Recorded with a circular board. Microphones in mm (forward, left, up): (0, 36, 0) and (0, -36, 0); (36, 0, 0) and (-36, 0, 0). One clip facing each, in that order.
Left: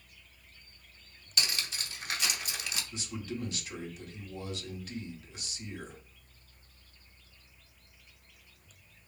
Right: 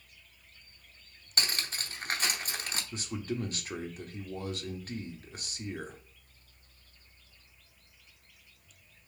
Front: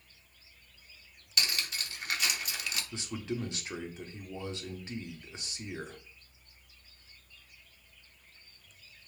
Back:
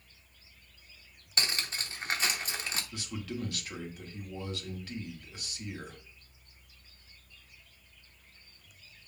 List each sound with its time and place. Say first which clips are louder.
1.4 s cutlery clinking: right 1 dB, back 1 dB; 130° right, 0.8 m
2.9 s a man speaking: right 6 dB, front 2 dB; 60° right, 1.1 m